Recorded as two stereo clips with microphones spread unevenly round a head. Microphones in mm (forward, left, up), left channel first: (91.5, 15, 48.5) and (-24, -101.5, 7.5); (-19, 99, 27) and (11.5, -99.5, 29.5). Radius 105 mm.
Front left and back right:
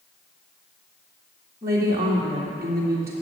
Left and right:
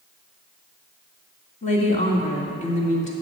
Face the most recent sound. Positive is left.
turn(degrees=150)